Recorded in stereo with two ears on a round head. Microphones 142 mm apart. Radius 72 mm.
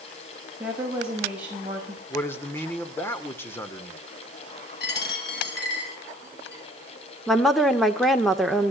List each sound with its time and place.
0.6 s a woman speaking: 10° right (ahead or behind), 5 m
2.1 s a man speaking: 15° left (ahead or behind), 2 m
4.8 s a dropped coin: 65° left (ahead or behind), 6.5 m
7.3 s a woman speaking: centre (ahead or behind), 1.8 m